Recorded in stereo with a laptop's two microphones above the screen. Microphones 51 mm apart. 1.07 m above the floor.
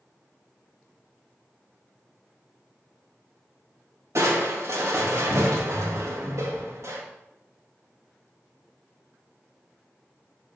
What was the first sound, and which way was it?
Crushing, 65° right (ahead or behind).